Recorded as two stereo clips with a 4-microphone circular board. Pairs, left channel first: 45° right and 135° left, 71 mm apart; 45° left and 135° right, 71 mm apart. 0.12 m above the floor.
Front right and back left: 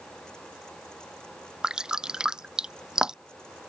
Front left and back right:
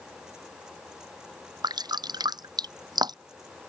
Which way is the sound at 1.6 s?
145° right.